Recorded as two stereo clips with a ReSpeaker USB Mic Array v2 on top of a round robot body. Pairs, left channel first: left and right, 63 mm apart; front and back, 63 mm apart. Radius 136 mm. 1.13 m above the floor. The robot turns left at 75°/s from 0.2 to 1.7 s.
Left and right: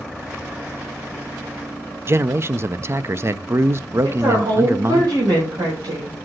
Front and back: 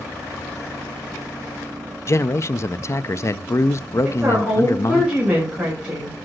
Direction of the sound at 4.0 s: 105° right.